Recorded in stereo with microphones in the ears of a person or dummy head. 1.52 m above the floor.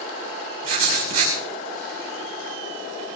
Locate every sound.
0.6 s writing: 45° right (ahead or behind), 4.5 m